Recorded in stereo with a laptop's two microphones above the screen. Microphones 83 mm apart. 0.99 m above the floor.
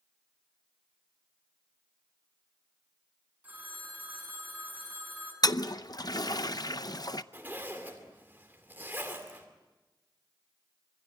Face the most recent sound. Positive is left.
turn(degrees=-20)  # may be behind; listen again after turning